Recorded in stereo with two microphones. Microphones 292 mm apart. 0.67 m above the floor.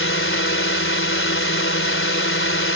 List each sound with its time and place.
0.0 s a drone: 45° left (ahead or behind)